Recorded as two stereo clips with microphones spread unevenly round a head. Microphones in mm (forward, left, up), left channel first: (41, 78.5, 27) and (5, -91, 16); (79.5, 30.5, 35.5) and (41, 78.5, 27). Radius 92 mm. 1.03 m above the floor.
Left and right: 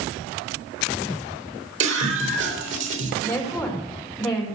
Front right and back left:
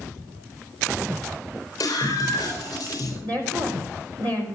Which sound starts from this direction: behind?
A woman speaking, at 3.2 s.